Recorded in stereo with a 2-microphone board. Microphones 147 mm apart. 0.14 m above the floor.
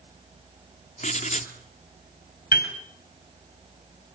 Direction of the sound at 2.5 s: 85° left.